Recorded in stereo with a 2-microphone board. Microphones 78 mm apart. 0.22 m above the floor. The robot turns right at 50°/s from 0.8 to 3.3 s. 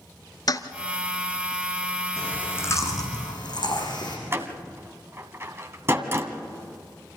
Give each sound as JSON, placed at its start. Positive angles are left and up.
{"t": 0.5, "sound": "a toilet flushing", "side_deg": 55, "distance_m": 0.9}
{"t": 2.2, "sound": "chewing", "azimuth_deg": 5, "distance_m": 5.0}
{"t": 4.3, "sound": "a door slam", "side_deg": -30, "distance_m": 1.5}